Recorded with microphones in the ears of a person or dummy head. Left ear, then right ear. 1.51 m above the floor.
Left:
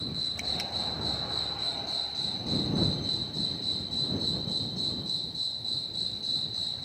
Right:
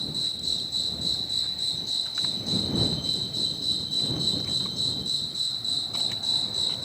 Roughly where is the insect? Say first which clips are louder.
Right 4 dB; right.